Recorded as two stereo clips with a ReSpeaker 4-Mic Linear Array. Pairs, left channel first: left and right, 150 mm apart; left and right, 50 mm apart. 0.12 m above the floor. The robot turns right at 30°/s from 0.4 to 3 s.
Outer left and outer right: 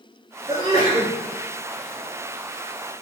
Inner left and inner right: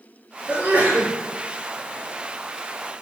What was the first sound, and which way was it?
A sneeze, 40° right (ahead or behind).